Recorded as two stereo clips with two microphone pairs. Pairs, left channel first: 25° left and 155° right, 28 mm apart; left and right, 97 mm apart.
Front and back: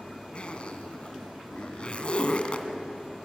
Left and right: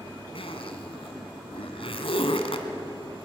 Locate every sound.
0.3 s a zipper: 75° left, 2.0 m